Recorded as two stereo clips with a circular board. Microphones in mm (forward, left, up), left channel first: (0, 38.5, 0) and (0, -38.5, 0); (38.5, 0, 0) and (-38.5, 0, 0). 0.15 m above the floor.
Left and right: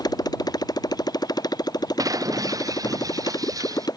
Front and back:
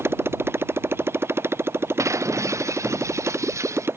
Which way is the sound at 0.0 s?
120° left.